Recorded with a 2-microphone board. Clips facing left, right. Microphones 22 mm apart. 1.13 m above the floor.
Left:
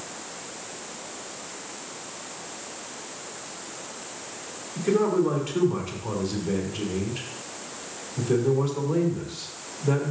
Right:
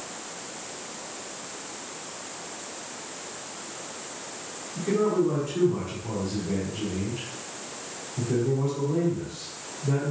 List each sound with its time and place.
4.8 s a man speaking: 45° left (ahead or behind), 3 m